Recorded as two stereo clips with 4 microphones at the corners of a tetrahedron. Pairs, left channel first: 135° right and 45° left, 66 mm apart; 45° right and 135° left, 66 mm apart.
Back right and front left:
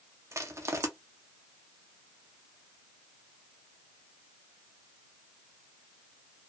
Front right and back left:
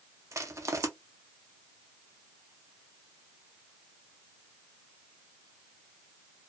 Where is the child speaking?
No child speaking in this recording.